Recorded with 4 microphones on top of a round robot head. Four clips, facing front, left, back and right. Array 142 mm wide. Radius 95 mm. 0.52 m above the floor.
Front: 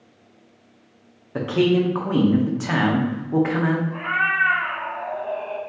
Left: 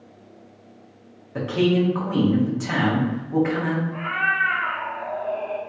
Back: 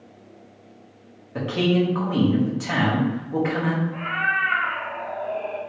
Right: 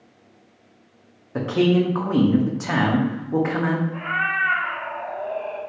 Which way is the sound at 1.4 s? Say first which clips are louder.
Right 1 dB, front 2 dB; 50° right.